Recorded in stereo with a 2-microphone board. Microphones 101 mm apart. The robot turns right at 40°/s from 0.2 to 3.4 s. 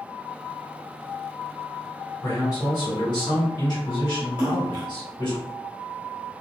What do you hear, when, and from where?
2.2 s a man speaking: 45° left, 1.7 m; by 5.4 s 90° left, 1.7 m
4.4 s a splash: 45° right (ahead or behind), 1.2 m